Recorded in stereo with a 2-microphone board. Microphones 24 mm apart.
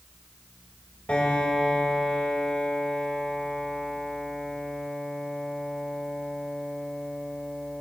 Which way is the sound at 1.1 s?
60° left (ahead or behind).